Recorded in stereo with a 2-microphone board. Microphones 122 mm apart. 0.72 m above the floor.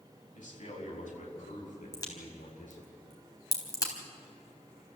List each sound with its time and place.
0.3 s a man speaking: 75° left (ahead or behind), 4.5 m; by 2.9 s 85° left, 8.5 m
1.9 s a crack: 30° left (ahead or behind), 4 m